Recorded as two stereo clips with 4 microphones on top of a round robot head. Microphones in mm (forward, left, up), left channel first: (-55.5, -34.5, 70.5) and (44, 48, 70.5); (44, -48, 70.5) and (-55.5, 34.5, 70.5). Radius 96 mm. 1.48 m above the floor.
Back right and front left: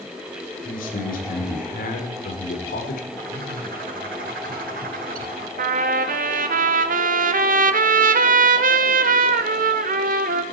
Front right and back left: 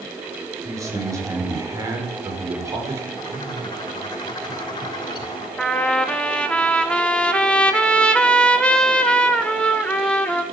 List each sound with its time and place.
0.7 s a man speaking: 150° right, 6 m
3.2 s a bird: 20° left, 3 m
5.6 s a trumpet: 45° left, 1.7 m